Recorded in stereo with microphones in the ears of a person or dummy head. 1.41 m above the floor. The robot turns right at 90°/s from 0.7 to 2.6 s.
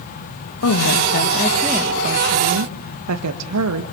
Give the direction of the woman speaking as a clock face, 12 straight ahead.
9 o'clock.